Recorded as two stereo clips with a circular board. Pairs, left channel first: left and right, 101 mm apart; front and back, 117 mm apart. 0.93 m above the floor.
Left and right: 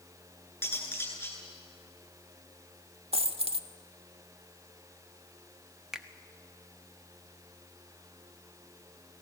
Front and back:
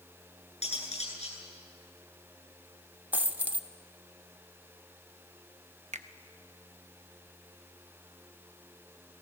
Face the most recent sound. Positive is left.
turn(degrees=-175)